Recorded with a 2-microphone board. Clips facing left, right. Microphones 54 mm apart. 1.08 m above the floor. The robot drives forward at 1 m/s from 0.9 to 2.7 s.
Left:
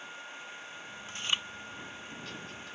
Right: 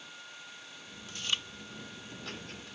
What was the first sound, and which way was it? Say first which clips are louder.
Chewing: left 2 dB; 30° left (ahead or behind).